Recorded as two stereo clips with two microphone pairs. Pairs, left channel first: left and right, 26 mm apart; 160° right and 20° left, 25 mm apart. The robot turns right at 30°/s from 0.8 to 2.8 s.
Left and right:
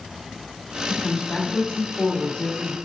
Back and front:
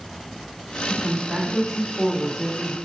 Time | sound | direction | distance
0.9 | a woman speaking | 70° left | 1.3 m